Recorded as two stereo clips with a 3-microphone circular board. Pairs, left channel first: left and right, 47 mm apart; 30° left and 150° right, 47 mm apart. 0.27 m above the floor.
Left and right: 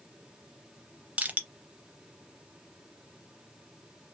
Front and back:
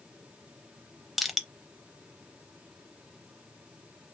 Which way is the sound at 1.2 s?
60° right.